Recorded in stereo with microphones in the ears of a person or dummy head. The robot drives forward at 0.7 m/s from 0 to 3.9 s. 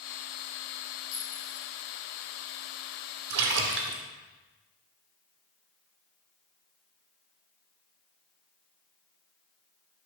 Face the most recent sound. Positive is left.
turn(degrees=-50)  # may be behind; listen again after turning